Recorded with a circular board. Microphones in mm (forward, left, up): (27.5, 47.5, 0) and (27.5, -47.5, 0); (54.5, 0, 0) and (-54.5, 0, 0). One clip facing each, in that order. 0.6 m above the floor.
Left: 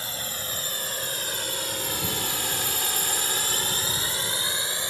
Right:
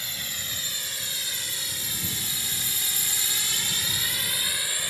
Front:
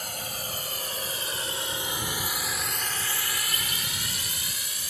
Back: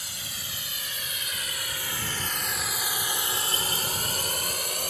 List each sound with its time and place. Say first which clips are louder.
0.0 s a drone: left 5 dB, front 7 dB; 35° left; by 4.9 s 155° left